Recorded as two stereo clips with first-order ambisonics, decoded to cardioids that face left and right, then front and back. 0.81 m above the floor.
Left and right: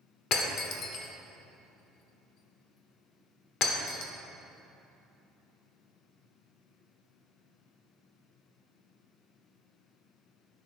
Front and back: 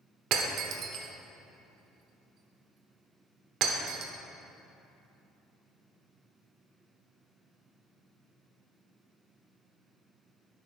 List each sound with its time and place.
0.3 s breaking glass: 135° left, 1.1 m